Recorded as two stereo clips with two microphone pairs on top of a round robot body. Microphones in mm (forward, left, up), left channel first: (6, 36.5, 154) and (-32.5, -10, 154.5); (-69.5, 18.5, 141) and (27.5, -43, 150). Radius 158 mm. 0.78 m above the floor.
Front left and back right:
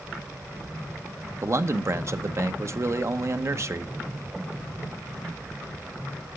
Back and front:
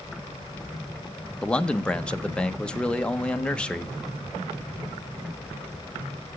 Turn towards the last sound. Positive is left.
turn(degrees=-140)